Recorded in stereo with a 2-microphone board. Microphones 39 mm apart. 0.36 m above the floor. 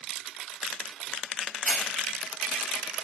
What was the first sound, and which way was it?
A hiss, 45° left (ahead or behind).